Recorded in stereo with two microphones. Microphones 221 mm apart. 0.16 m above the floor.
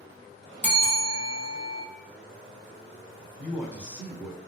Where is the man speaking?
10° right (ahead or behind), 1.1 m.